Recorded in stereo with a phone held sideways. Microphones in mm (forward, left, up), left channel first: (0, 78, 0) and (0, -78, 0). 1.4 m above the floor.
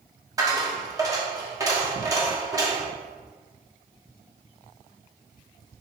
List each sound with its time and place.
0.4 s a dropped coin: 25° right (ahead or behind), 0.9 m